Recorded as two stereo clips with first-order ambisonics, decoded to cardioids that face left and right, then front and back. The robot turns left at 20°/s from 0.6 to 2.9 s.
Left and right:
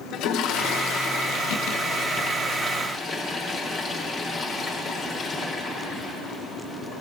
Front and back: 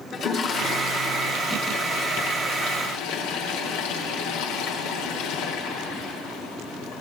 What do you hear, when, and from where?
0.1 s a toilet flushing: 55° left, 1.1 m; by 7.0 s 5° left, 1.1 m